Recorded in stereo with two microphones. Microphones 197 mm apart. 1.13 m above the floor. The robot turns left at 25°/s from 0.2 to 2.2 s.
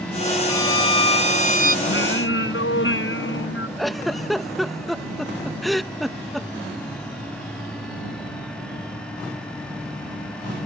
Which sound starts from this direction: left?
Singing, at 1.9 s.